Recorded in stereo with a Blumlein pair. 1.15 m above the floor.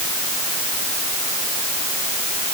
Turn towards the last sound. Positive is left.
No sound to turn to.